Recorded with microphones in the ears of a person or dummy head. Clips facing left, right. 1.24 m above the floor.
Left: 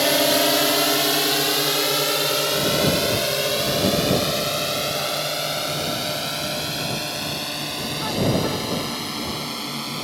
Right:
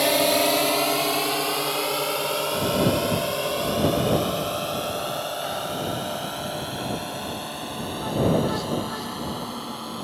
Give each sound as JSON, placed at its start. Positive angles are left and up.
{"t": 0.0, "sound": "a drone", "side_deg": 10}